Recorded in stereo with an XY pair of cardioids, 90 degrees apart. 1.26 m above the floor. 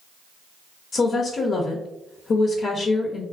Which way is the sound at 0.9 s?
55° left.